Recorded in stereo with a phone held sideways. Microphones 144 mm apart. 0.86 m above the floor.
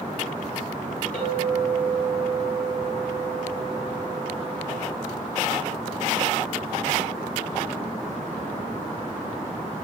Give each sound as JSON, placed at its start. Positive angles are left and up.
{"t": 1.1, "sound": "a clink", "side_deg": 70, "distance_m": 3.5}